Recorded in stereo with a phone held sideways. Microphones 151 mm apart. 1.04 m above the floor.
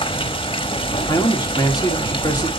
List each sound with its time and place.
0.0 s running water: 35° left (ahead or behind), 1.0 m
1.1 s a man speaking: 25° left (ahead or behind), 2 m